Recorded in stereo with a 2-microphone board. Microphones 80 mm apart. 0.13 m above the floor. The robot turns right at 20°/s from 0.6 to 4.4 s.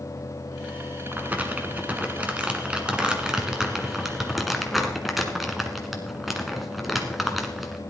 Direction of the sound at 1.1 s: 20° right (ahead or behind).